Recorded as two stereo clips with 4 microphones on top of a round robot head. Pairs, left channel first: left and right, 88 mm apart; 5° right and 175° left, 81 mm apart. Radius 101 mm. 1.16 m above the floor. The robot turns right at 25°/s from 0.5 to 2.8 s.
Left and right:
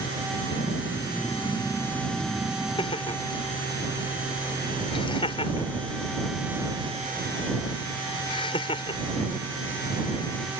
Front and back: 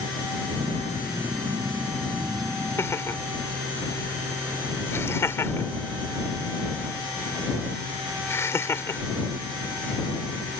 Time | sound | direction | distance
2.8 | laughter | 55° left | ?